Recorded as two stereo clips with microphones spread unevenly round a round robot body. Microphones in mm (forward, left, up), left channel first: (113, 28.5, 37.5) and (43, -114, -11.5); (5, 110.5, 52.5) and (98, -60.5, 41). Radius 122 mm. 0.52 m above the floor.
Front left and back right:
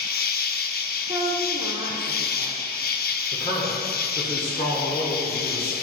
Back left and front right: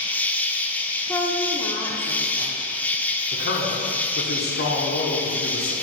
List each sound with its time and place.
0.0 s an insect: 35° left, 0.7 m
1.1 s a woman speaking: 170° right, 1.0 m
3.3 s a man speaking: 135° left, 1.6 m